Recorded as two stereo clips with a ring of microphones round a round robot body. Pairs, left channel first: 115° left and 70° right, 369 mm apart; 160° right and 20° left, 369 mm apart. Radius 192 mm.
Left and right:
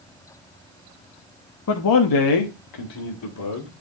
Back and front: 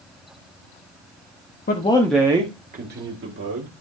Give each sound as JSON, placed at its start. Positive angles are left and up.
{"t": 1.7, "sound": "a man speaking", "azimuth_deg": 145, "distance_m": 1.1}